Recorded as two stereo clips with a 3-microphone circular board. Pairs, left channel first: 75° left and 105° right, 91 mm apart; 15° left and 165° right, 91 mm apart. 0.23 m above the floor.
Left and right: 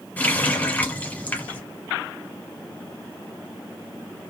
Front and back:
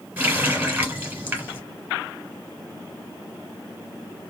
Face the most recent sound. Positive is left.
turn(degrees=130)